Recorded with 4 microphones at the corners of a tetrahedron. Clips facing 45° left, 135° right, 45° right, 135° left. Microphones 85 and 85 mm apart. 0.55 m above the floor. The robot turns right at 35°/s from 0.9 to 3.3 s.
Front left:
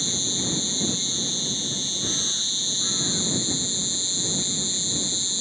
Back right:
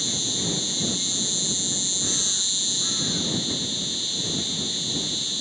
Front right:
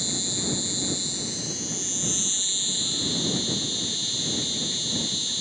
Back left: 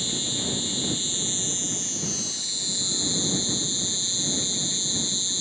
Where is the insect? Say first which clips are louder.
Even, even; 10° left; by 5.4 s 95° left.